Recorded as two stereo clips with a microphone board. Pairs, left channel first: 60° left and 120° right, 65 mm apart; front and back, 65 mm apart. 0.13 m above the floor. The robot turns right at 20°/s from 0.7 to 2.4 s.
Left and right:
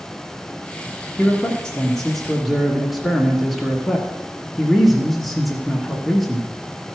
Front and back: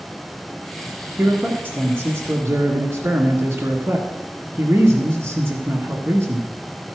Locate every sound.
1.2 s a man speaking: 130° left, 1.5 m; by 6.5 s 155° left, 1.5 m